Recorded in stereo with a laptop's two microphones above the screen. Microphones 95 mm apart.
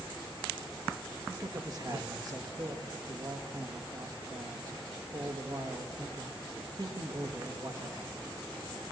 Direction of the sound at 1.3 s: 40° right (ahead or behind).